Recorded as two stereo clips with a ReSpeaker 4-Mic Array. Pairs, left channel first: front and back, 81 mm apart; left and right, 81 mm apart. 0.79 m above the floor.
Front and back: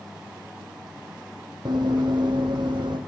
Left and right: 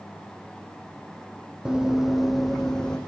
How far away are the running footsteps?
About 1.7 m.